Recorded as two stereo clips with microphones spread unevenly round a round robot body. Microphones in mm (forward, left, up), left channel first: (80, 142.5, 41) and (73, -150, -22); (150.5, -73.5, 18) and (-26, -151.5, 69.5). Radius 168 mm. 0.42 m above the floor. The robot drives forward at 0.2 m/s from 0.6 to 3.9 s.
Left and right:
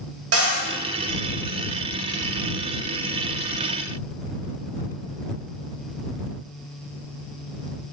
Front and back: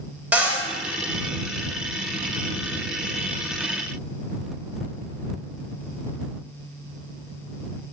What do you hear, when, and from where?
0.3 s a cupboard door: 65° right, 0.9 m